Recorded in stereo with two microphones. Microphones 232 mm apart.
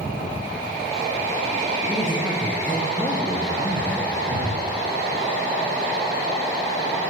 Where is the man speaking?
Centre (ahead or behind), 9 m; by 4.2 s 15° left (ahead or behind), 7 m.